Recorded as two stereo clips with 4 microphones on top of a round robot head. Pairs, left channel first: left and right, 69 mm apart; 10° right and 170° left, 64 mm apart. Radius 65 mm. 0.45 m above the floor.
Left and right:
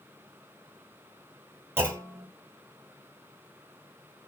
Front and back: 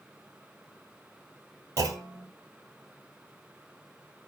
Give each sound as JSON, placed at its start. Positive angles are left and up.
{"t": 1.8, "sound": "a clunk", "azimuth_deg": -145, "distance_m": 2.5}